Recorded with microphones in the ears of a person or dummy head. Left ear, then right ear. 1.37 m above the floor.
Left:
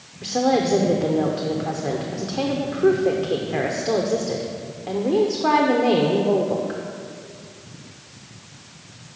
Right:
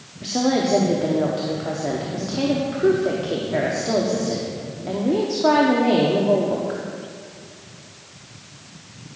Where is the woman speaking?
5° left (ahead or behind), 0.7 m.